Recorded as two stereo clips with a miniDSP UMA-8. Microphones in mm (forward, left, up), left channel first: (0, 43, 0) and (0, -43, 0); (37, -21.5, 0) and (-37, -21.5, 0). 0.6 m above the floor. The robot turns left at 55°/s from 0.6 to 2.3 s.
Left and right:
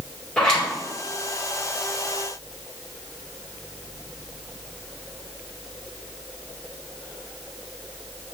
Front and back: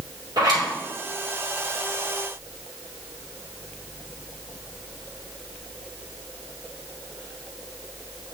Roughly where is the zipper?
Behind.